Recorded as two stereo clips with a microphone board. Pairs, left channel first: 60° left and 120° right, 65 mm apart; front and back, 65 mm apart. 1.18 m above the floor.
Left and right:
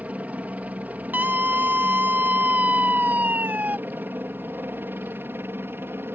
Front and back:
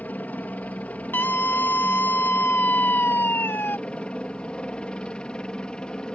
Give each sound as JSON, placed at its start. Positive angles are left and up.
{"t": 0.0, "sound": "a helicopter", "azimuth_deg": -60}
{"t": 1.1, "sound": "a scream", "azimuth_deg": -60}